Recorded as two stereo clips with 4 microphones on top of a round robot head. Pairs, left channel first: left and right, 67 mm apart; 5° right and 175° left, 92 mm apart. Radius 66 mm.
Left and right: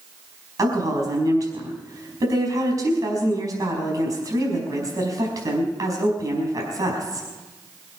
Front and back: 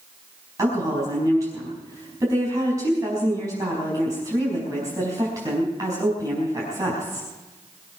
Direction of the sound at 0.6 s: 120° right.